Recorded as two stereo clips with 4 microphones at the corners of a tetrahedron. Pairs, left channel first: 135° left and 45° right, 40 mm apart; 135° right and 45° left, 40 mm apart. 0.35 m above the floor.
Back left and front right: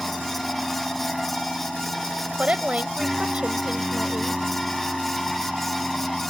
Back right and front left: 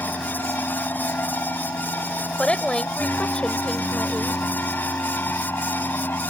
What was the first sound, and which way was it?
An aircraft, 135° right.